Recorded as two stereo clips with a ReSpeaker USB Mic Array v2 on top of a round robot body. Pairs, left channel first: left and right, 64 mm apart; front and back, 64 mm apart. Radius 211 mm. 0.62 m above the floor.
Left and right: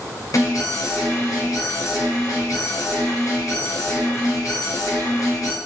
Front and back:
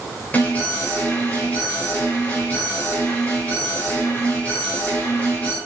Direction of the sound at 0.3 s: 65° left.